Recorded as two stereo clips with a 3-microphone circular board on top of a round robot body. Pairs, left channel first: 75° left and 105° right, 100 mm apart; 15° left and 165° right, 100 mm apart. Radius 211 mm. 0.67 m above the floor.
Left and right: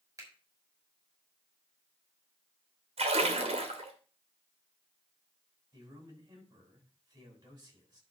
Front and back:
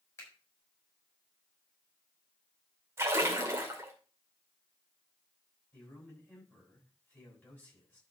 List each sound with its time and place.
0.2 s a finger snap: 50° right, 5 m
3.0 s a splash: 100° right, 2.5 m
5.7 s a man speaking: 60° right, 7.5 m